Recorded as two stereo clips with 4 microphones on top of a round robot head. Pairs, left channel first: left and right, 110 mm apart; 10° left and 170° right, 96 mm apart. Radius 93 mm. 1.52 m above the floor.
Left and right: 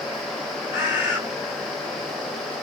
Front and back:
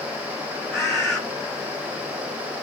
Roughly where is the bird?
Left.